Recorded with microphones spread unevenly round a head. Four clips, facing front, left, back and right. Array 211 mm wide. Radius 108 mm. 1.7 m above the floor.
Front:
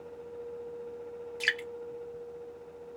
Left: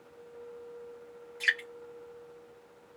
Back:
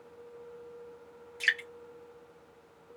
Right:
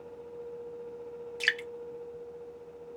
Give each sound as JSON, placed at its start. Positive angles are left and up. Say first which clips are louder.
{"t": 1.4, "sound": "dripping", "louder": "left 1 dB, back 1 dB", "azimuth_deg": -90, "distance_m": 1.0}